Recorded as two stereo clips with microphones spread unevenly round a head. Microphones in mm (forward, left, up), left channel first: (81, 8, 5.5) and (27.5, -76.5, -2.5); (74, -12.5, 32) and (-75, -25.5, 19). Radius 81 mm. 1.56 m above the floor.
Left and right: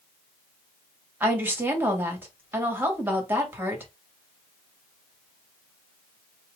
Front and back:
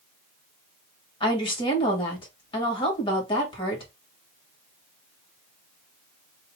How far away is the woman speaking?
About 2 m.